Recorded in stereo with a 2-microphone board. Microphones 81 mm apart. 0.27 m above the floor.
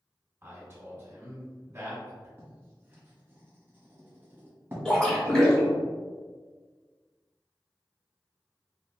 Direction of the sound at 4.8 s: 10° left (ahead or behind).